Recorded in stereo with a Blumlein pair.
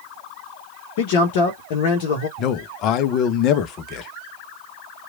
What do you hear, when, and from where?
1.0 s a man speaking: 50° left, 0.9 m
2.4 s a man speaking: 35° left, 0.5 m